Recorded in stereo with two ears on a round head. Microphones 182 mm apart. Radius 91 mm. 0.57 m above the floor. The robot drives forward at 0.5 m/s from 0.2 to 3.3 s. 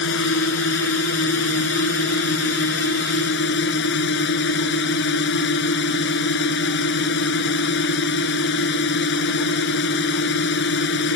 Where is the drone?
65° left (ahead or behind); by 11.2 s 60° left (ahead or behind).